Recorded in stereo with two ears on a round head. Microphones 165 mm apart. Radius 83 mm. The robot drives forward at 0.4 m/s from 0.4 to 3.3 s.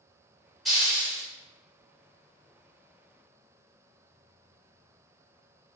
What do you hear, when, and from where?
0.7 s a hiss: centre (ahead or behind), 0.8 m